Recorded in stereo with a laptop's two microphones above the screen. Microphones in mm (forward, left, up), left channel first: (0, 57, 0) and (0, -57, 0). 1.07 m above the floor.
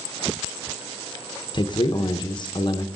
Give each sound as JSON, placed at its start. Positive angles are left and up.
{"t": 1.5, "sound": "a man speaking", "side_deg": 40, "distance_m": 0.7}